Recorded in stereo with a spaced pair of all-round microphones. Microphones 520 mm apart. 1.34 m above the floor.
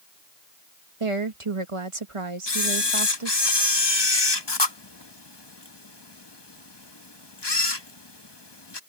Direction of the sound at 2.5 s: 50° left (ahead or behind).